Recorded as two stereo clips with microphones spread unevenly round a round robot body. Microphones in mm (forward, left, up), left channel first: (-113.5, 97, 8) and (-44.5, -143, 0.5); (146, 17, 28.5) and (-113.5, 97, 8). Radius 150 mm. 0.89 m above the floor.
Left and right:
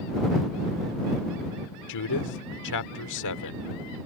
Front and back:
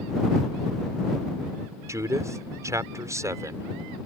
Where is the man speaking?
85° left.